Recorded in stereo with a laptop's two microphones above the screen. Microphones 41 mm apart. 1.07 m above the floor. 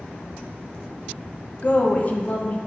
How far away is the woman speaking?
About 1.0 m.